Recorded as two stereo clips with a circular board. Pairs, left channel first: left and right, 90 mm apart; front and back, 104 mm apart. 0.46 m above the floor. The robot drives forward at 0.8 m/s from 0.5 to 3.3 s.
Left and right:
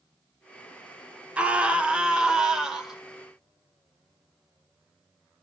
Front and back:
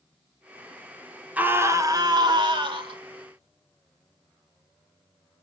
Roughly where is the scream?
Behind right.